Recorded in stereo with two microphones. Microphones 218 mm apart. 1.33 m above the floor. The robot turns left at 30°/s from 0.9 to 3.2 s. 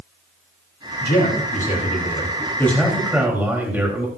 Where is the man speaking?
60° left, 3 m; by 4.1 s 10° right, 3 m.